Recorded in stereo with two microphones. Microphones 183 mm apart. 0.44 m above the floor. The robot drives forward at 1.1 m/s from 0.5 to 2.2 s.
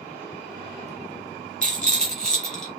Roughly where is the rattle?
Centre.